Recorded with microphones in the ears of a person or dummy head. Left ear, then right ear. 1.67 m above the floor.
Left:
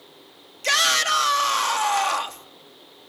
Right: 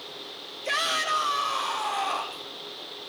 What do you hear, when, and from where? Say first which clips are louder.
0.6 s a shout: left 7 dB; 65° left (ahead or behind), 3 m